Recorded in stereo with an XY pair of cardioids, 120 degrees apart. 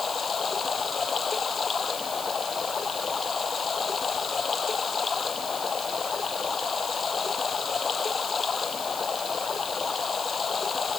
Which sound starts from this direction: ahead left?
Running water, at 0.0 s.